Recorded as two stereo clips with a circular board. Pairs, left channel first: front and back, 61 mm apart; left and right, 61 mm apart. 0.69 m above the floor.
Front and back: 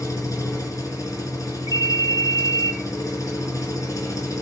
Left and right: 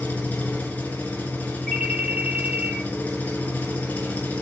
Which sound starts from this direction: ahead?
A ringtone, at 1.7 s.